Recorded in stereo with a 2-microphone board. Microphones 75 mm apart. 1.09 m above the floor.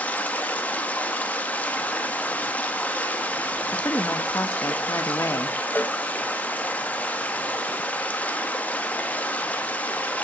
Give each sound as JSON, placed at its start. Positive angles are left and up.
{"t": 0.0, "sound": "running water", "side_deg": 20, "distance_m": 1.4}
{"t": 3.7, "sound": "a woman speaking", "side_deg": 40, "distance_m": 1.4}
{"t": 5.8, "sound": "a cowbell", "side_deg": 25, "distance_m": 0.7}